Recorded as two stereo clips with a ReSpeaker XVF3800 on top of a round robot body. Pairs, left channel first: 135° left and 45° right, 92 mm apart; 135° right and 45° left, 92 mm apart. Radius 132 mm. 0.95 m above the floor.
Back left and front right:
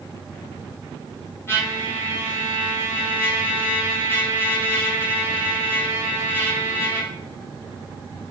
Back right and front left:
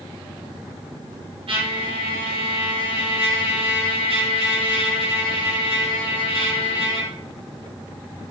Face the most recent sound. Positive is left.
turn(degrees=70)